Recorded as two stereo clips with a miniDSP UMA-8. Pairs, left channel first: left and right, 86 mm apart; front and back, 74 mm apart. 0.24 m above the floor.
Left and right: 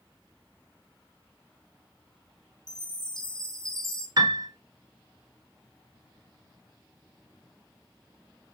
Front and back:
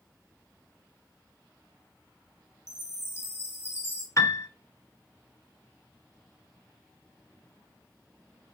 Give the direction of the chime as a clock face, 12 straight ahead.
12 o'clock.